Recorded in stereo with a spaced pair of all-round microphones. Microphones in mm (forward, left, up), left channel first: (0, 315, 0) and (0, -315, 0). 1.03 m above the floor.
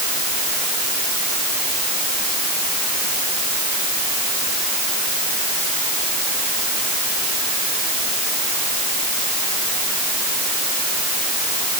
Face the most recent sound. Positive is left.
No sound to turn to.